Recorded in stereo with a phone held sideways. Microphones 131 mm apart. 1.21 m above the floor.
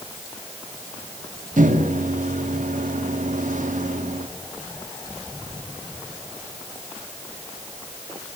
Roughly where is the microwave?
Right.